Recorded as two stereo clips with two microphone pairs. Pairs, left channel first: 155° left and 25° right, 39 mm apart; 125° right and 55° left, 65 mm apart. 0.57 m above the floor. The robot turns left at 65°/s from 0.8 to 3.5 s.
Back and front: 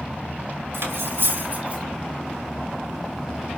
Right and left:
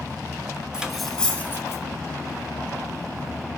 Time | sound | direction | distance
0.7 | cutlery clinking | 20° right | 1.8 m